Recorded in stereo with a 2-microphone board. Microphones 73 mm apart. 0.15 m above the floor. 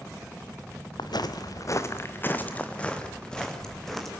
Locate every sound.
1.0 s footsteps: 75° left (ahead or behind), 1.4 m; by 4.1 s 5° left (ahead or behind), 4 m